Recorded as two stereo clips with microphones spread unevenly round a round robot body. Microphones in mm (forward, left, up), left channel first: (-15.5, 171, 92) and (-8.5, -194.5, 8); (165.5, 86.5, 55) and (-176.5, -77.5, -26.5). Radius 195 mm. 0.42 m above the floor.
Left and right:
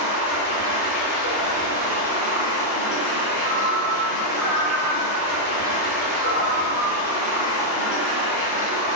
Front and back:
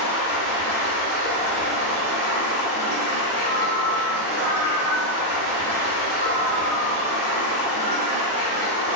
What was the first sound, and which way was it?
Running water, 70° left.